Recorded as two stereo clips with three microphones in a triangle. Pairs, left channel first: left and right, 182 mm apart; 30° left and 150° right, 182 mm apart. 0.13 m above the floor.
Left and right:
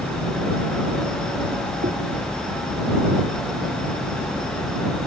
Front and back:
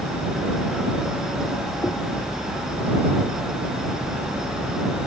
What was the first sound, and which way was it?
Knocking, 45° right.